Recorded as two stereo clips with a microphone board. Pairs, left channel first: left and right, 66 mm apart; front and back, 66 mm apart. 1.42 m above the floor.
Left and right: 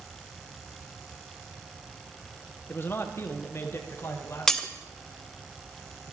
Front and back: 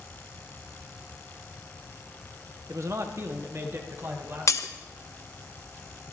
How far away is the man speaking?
About 0.6 m.